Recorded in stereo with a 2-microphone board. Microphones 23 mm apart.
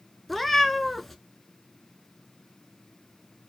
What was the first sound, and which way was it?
A cat meowing, 5° left (ahead or behind).